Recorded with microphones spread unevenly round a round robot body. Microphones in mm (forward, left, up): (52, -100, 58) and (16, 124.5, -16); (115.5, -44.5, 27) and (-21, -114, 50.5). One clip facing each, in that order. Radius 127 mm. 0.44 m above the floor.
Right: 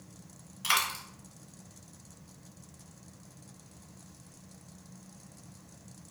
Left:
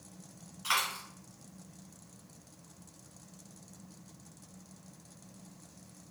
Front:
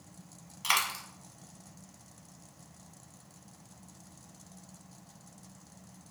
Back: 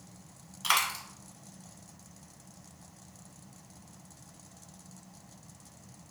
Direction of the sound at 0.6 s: 55° right.